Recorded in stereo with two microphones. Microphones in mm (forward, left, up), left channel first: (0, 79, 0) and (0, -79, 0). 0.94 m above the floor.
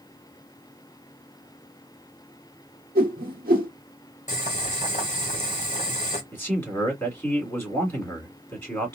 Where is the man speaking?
15° left (ahead or behind), 2 m.